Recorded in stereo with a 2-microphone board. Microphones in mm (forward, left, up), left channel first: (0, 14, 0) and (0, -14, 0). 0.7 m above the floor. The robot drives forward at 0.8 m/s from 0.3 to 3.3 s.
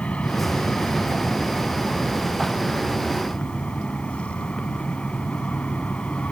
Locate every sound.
0.0 s an aircraft: 50° left (ahead or behind)